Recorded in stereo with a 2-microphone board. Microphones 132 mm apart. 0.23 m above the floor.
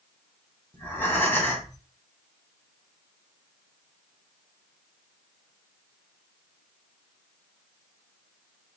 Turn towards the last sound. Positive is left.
turn(degrees=15)  # may be behind; listen again after turning